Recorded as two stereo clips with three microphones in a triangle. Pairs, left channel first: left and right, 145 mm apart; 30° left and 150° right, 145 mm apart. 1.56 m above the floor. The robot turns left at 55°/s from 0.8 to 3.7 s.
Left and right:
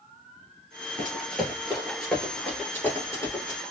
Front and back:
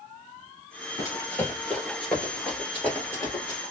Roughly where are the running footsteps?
Ahead left.